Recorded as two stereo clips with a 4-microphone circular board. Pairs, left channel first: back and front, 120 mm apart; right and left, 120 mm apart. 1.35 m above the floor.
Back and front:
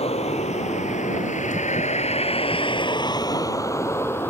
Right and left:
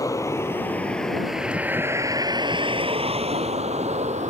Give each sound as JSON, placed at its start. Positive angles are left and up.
{"t": 0.0, "sound": "a vehicle", "azimuth_deg": -150}